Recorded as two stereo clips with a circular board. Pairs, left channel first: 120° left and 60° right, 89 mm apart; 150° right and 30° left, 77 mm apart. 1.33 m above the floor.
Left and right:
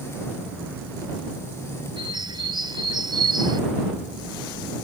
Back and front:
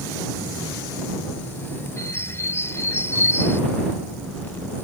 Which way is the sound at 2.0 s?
95° right.